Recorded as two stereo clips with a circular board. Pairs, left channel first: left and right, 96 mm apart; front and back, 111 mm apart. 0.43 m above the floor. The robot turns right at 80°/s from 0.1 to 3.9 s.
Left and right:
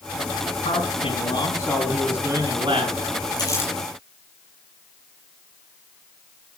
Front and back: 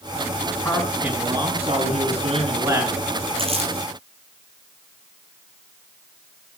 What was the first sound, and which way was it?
A man speaking, 70° left.